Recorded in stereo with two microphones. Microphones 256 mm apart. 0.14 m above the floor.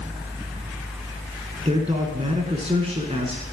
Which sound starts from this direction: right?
A man speaking, at 1.6 s.